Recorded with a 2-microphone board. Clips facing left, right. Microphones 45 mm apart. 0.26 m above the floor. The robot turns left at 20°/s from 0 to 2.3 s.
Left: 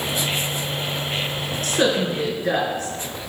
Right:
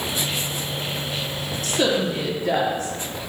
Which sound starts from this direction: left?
A woman speaking, at 1.6 s.